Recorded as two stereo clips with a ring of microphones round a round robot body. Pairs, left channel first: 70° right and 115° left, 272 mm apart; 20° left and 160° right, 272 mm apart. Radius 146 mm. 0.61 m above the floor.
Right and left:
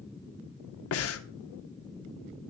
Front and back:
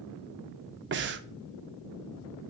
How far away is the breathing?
About 0.6 m.